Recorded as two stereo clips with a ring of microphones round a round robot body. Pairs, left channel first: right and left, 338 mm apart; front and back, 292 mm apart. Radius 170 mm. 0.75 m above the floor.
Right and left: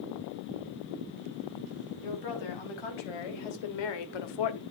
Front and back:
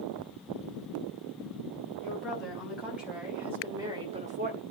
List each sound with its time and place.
2.0 s a woman speaking: 90° right, 5 m; by 4.6 s 120° right, 1.1 m